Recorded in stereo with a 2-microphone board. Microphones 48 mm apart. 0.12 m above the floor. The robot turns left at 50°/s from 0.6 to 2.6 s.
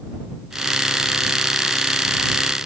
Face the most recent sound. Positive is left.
No sound to turn to.